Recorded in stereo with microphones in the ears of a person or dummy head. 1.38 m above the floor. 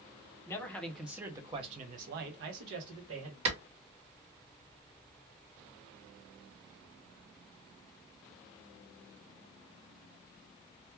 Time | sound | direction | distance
0.5 | a man speaking | 15° left (ahead or behind) | 0.8 m
3.5 | a clap | 40° right (ahead or behind) | 1.1 m